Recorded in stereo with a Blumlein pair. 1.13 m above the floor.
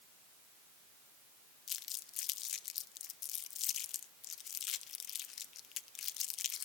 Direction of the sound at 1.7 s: 30° left.